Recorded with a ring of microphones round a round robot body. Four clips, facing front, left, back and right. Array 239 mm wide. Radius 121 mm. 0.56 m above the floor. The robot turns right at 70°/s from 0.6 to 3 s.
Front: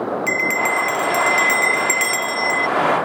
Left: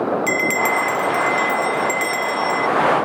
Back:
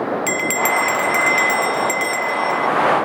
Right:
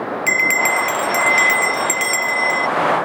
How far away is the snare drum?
No snare drum in this recording.